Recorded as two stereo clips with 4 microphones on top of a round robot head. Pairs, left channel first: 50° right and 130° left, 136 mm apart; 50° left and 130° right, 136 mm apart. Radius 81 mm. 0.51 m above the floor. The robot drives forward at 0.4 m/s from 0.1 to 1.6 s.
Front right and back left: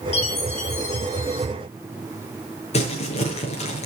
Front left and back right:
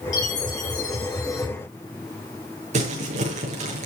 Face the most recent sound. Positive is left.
turn(degrees=-90)